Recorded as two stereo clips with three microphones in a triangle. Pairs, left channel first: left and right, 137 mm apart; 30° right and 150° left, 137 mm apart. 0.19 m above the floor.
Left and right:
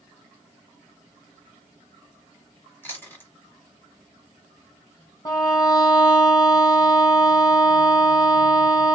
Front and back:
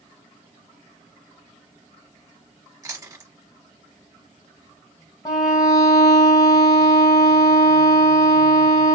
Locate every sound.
2.8 s chewing: 140° left, 1.2 m
5.2 s a violin: 30° left, 1.0 m